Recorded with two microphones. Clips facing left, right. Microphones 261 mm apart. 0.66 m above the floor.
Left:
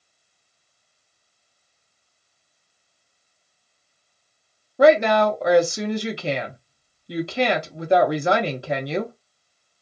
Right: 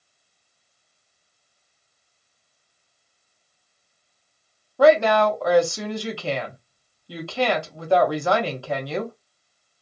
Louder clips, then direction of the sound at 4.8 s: Left 1 dB; 20° left (ahead or behind).